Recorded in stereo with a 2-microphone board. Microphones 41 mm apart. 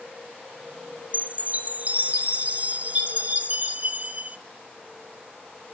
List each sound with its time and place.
1.1 s a chime: 40° right (ahead or behind), 0.6 m